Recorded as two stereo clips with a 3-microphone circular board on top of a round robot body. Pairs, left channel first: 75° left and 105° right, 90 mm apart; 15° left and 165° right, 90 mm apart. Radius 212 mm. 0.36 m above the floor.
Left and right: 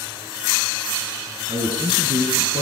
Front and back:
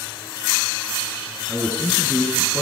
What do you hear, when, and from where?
1.5 s a man speaking: 85° right, 6 m